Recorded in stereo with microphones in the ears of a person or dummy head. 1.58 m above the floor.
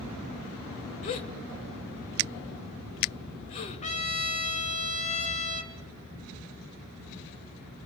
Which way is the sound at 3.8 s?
30° left (ahead or behind).